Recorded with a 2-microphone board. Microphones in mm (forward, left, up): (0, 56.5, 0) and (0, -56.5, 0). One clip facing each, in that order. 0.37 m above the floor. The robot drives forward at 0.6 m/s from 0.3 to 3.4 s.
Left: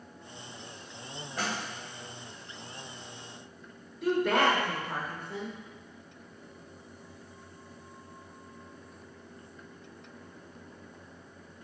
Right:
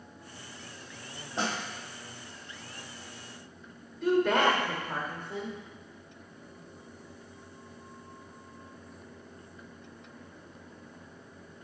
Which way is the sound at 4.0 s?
5° left (ahead or behind).